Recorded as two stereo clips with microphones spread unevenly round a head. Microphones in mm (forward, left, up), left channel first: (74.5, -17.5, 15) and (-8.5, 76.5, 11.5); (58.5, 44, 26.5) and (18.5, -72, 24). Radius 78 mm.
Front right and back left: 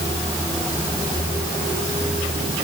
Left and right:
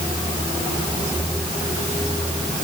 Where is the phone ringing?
No phone ringing in this recording.